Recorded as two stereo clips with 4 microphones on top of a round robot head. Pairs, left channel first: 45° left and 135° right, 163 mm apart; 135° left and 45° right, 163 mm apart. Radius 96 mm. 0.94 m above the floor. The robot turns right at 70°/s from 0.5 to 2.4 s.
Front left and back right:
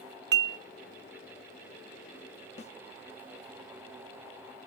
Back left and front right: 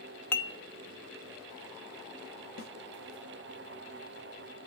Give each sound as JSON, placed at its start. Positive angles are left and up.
{"t": 0.3, "sound": "dishes clattering", "azimuth_deg": -150, "distance_m": 1.0}
{"t": 2.6, "sound": "a snare drum", "azimuth_deg": 95, "distance_m": 0.9}